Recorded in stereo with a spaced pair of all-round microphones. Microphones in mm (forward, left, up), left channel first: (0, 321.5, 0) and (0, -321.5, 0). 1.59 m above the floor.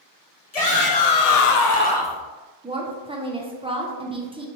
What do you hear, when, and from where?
0.5 s a shout: 65° left (ahead or behind), 1.2 m; by 2.2 s 5° right (ahead or behind), 0.8 m
2.6 s a woman speaking: 10° right (ahead or behind), 0.6 m